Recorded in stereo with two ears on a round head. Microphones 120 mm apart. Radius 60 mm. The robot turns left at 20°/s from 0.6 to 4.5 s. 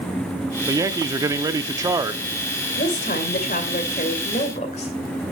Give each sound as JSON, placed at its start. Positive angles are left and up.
{"t": 0.7, "sound": "a man speaking", "side_deg": -25, "distance_m": 0.7}
{"t": 2.8, "sound": "a woman speaking", "azimuth_deg": 95, "distance_m": 2.5}